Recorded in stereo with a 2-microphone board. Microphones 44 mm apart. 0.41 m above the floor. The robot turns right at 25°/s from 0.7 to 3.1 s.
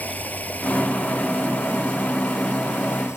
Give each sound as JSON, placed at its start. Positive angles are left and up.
{"t": 0.0, "sound": "running water", "azimuth_deg": 35}